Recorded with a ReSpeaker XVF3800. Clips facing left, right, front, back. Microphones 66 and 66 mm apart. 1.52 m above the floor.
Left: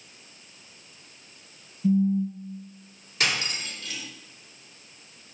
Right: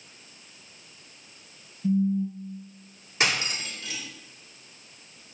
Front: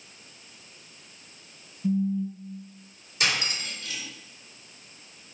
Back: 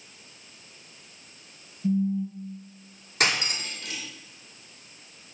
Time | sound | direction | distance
1.8 | a phone buzzing | 90° left | 0.9 m
3.2 | cutlery clinking | 155° right | 1.8 m